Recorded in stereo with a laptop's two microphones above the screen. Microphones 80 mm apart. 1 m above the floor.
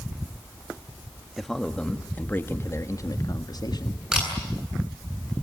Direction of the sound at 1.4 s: Centre (ahead or behind).